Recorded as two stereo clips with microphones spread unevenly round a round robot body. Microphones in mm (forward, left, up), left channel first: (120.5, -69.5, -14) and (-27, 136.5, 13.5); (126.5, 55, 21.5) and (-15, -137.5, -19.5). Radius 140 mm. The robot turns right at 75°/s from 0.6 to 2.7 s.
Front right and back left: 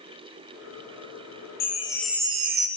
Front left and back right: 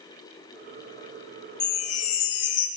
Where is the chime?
Straight ahead, 0.5 m; by 2.7 s 80° left, 0.5 m.